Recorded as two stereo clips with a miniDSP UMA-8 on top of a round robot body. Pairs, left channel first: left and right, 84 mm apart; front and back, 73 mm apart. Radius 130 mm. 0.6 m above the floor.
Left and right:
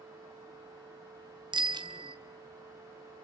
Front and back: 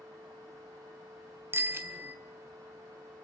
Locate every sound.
1.5 s a bicycle bell: 120° right, 2.5 m